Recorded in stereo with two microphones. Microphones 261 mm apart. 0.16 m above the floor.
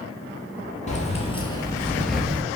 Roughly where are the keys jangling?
Left.